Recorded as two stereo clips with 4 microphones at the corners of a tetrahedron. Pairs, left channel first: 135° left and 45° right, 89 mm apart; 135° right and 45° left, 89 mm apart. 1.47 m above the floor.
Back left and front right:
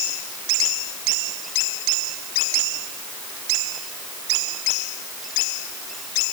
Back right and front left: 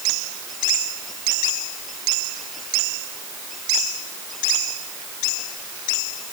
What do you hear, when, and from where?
Only background noise.